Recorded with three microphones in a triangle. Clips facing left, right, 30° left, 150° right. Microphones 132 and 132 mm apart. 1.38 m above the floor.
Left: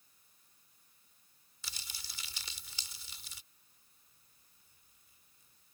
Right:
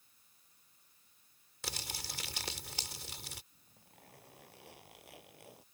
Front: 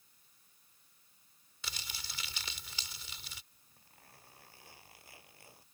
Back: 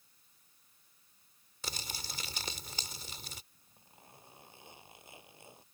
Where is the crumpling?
105° right.